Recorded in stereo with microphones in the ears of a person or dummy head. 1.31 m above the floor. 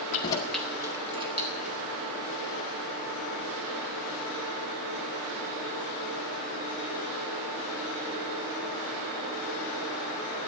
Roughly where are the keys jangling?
Left.